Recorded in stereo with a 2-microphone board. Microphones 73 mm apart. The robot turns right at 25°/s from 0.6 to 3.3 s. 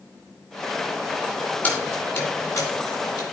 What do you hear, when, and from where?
1.6 s keys jangling: 20° left (ahead or behind), 3 m; by 3.2 s 60° left (ahead or behind), 3 m